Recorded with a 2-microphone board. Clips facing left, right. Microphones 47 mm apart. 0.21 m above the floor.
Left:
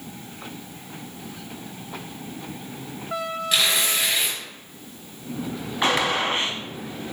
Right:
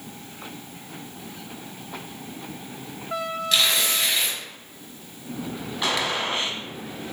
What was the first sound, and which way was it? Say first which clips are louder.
Tearing paper: even; 10° left (ahead or behind).